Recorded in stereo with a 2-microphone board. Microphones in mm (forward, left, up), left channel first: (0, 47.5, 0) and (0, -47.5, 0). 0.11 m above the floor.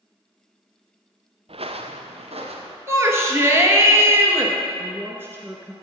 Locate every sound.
1.5 s footsteps: 70° right (ahead or behind), 0.7 m; by 2.8 s 85° right, 2 m
2.9 s a shout: 25° right (ahead or behind), 1.8 m
4.8 s a woman speaking: 25° right (ahead or behind), 1.2 m